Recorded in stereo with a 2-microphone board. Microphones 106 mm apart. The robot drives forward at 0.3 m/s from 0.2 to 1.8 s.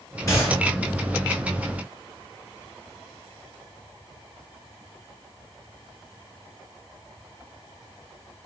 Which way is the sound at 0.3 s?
30° left (ahead or behind).